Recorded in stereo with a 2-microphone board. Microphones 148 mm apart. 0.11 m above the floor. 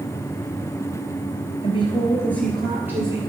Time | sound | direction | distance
1.6 | a woman speaking | 40° left (ahead or behind) | 1.9 m